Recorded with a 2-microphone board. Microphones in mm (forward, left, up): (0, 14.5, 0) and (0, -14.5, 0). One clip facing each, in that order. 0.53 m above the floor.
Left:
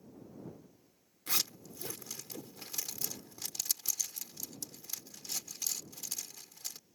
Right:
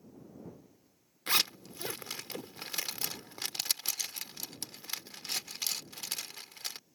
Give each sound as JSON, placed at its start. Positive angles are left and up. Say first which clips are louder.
{"t": 1.3, "sound": "a zipper", "louder": "right 7 dB", "side_deg": -55}